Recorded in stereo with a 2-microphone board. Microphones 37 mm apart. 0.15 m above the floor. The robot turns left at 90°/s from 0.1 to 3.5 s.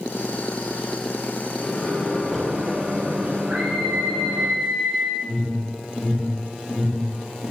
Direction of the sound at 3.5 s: 40° right (ahead or behind).